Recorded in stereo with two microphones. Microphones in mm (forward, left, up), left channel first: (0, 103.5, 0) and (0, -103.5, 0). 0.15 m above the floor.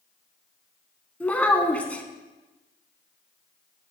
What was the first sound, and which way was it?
A child speaking, 5° left (ahead or behind).